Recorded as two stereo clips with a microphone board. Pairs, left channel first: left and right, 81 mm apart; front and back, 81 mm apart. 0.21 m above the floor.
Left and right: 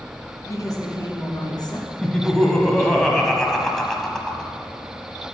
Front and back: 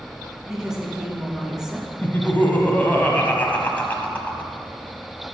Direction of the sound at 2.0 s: 20° left.